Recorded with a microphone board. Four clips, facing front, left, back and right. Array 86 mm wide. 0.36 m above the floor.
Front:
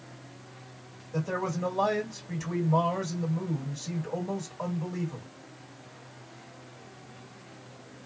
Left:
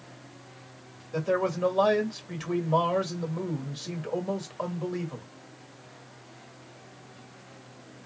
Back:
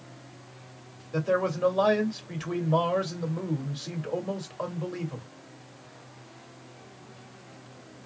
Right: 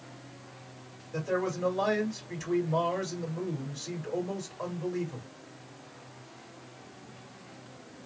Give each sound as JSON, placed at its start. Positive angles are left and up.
{"t": 1.1, "sound": "a man speaking", "azimuth_deg": 135, "distance_m": 1.6}